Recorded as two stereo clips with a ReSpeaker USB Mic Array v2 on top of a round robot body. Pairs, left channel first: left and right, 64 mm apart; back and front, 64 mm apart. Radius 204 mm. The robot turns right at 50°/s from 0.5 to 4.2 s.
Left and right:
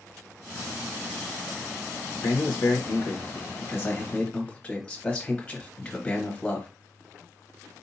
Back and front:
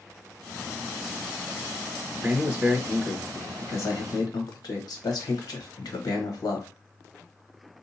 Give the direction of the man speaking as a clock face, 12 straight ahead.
10 o'clock.